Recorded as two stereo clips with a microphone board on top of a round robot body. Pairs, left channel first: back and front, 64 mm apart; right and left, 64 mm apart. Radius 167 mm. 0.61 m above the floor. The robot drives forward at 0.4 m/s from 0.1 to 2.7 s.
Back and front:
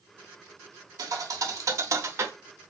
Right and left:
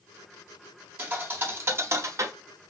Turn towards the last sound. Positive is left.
turn(degrees=65)